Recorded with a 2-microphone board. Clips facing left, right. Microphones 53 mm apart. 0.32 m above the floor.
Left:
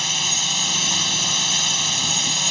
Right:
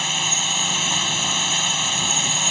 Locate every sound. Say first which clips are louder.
0.0 s a drone: right 1 dB; 10° right (ahead or behind)